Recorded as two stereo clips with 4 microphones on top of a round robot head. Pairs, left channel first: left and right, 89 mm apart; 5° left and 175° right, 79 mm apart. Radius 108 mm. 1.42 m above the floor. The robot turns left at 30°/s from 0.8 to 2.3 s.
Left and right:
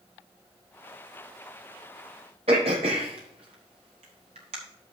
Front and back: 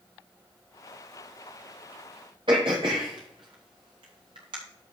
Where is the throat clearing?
125° right, 1.0 m.